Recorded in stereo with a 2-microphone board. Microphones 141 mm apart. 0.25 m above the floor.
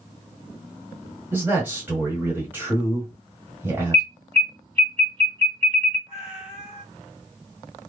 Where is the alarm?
35° right (ahead or behind), 1.3 m.